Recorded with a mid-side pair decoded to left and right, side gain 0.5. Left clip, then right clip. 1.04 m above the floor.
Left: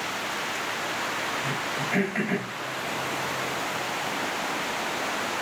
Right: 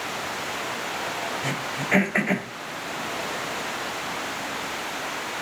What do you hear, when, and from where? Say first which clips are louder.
1.4 s throat clearing: right 1 dB; 55° right, 3 m